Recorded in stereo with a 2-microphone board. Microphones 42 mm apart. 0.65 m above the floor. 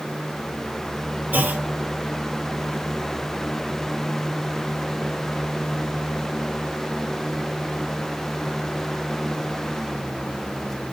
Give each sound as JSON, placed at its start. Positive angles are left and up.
{"t": 1.3, "sound": "a clunk", "side_deg": -50, "distance_m": 3.0}